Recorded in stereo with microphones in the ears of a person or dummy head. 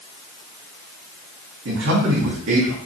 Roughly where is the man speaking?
Right.